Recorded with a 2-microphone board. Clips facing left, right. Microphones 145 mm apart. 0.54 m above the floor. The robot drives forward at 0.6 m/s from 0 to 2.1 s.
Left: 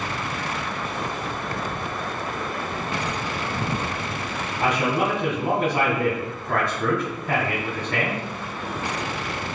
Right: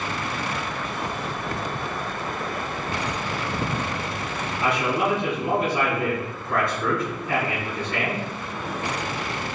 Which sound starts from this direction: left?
A man speaking, at 4.6 s.